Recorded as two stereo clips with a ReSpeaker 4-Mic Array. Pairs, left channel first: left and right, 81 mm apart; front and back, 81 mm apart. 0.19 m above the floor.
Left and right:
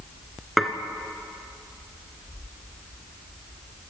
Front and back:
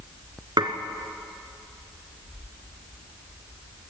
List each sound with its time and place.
0.6 s dishes clattering: straight behind, 1.4 m